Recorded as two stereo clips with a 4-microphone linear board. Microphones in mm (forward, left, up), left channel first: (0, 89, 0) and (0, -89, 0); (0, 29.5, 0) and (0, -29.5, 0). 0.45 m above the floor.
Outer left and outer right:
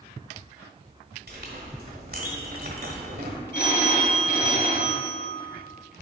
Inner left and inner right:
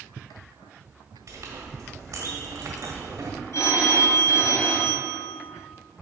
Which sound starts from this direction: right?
A clink, at 1.3 s.